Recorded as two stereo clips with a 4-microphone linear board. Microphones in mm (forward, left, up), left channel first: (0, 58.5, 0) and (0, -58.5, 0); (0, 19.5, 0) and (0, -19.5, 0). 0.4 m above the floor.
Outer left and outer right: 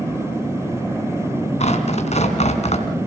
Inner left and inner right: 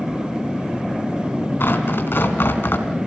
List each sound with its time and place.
1.6 s tearing paper: 65° left (ahead or behind), 2.5 m